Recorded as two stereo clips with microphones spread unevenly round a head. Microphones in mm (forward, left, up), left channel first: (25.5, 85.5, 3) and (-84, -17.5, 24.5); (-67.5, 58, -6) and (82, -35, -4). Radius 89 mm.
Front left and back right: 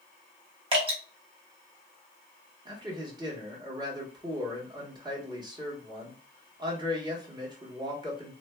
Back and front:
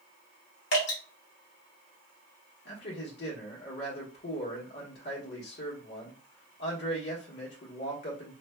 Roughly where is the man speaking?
Behind.